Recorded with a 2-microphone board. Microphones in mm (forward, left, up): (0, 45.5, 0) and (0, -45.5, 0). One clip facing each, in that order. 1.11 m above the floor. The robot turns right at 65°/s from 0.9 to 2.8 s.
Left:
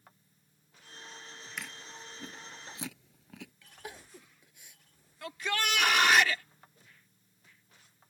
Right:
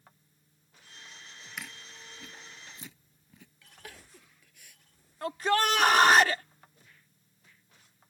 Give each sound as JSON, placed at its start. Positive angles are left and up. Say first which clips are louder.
{"t": 1.6, "sound": "chewing", "louder": "even", "side_deg": -5}
{"t": 3.8, "sound": "crying", "louder": "left 4 dB", "side_deg": 20}
{"t": 5.2, "sound": "a shout", "louder": "right 7 dB", "side_deg": -40}